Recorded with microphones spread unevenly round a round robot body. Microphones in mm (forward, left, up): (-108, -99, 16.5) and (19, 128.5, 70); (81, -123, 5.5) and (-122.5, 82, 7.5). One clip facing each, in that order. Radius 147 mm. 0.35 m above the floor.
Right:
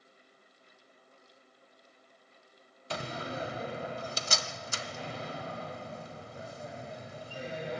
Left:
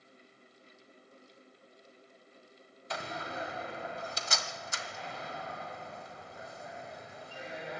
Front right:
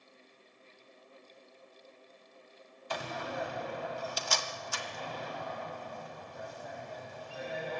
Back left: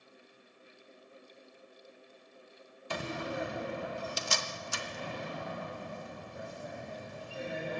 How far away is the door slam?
About 1.5 m.